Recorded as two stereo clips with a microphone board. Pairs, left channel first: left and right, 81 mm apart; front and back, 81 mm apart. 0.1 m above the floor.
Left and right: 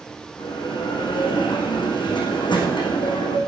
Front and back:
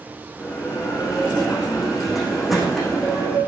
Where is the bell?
90° left, 4.5 m.